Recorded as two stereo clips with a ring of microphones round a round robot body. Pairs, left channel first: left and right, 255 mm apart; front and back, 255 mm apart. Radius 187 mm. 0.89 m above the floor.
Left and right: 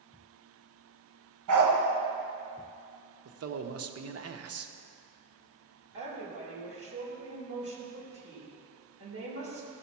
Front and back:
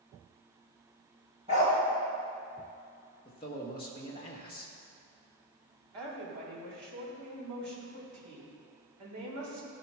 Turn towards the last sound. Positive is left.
turn(degrees=-145)